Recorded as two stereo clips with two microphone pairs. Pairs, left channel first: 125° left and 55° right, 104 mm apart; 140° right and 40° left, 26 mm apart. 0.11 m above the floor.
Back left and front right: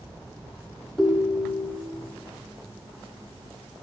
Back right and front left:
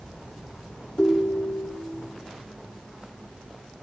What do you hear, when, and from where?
1.0 s a ringtone: 150° right, 1.5 m